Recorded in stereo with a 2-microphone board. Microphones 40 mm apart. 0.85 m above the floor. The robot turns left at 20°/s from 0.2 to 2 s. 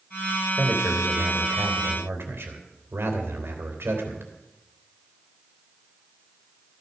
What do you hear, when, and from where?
0.6 s a man speaking: 50° right (ahead or behind), 3.5 m; by 4.3 s 75° right (ahead or behind), 3.5 m